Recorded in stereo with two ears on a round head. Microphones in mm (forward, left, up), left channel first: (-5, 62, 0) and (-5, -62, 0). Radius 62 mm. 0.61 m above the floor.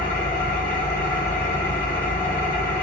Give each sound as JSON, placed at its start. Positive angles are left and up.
{"t": 0.0, "sound": "an engine running", "side_deg": 65, "distance_m": 2.0}